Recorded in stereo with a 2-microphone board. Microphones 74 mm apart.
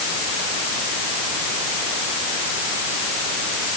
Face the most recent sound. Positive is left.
No sound to turn to.